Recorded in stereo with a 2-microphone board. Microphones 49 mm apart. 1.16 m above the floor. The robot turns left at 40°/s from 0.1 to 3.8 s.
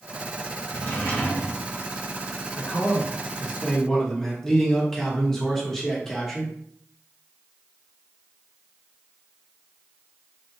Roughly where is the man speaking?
Ahead left.